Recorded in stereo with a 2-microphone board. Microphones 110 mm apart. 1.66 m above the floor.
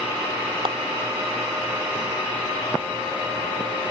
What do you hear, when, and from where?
0.7 s a clap: 55° right (ahead or behind)